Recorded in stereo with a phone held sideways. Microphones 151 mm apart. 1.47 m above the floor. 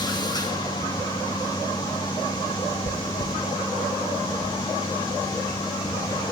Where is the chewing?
65° left (ahead or behind), 0.7 m.